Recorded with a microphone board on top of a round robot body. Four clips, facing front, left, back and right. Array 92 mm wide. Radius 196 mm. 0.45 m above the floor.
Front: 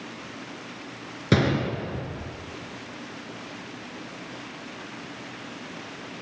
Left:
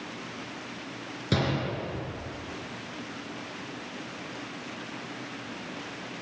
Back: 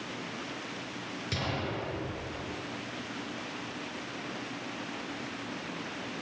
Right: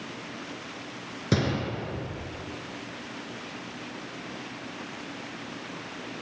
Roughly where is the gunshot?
Ahead.